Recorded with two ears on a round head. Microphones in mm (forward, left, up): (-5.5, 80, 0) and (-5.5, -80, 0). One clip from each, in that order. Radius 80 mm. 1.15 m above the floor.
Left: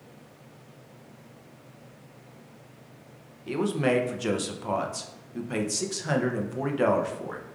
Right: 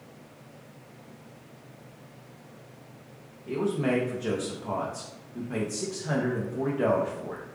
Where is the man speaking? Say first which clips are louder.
Left 2 dB; 80° left, 0.6 m.